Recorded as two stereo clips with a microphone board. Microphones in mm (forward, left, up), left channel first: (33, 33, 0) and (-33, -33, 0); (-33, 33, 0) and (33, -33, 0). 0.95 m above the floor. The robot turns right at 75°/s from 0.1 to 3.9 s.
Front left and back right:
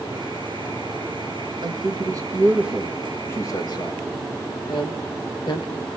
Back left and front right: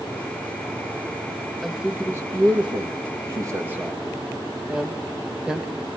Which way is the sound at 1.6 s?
140° right.